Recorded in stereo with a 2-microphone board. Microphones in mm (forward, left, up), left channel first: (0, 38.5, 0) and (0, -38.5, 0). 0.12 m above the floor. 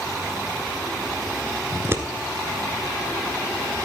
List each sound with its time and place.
1.7 s scissors: 35° right (ahead or behind), 1.5 m